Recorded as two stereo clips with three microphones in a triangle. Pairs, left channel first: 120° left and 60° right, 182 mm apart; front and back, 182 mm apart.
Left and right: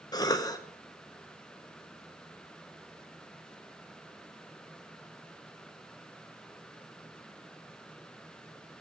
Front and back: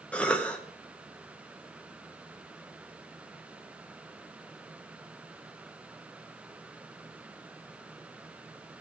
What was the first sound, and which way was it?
A cough, 75° left.